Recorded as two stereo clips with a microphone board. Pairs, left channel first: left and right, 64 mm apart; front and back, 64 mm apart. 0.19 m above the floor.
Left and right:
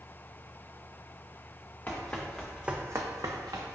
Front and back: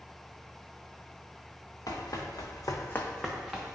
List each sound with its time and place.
1.9 s running footsteps: 25° left, 1.2 m; by 3.8 s 105° right, 1.1 m